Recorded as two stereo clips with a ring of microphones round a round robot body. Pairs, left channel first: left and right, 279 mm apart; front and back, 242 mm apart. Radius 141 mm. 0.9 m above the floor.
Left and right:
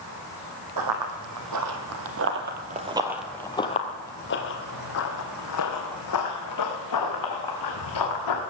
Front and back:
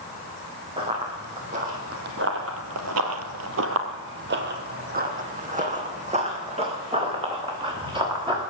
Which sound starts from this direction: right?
Running footsteps, at 0.8 s.